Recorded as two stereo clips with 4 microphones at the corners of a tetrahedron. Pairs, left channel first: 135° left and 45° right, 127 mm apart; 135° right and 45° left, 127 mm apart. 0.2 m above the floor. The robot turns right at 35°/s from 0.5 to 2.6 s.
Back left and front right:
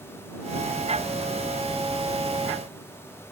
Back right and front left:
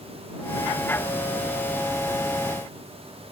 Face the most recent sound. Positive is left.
No sound to turn to.